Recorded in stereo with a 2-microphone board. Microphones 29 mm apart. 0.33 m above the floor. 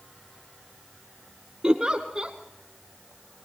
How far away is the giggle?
About 2.5 m.